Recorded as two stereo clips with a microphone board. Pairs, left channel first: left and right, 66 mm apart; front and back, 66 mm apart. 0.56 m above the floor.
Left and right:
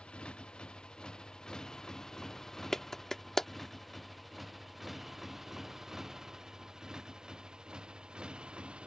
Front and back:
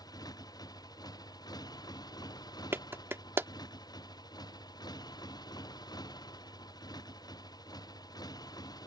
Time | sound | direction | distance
0.0 | a motorcycle | 15° left | ?
2.7 | a clap | 170° left | ?